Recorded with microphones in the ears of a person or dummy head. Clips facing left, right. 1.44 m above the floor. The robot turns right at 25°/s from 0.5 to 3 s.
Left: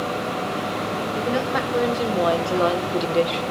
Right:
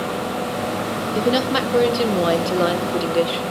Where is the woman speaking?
55° right, 1.0 m; by 3.5 s 10° right, 1.0 m.